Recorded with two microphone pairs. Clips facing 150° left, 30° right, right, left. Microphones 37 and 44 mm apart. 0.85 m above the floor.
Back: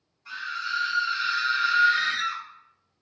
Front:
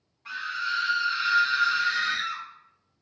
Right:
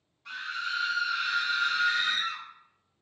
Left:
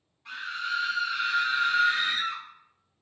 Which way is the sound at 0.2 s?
10° left.